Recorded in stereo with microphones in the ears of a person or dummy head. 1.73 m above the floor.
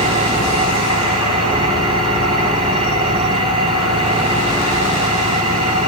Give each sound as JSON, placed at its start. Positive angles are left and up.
{"t": 0.0, "sound": "an engine running", "side_deg": -30, "distance_m": 8.0}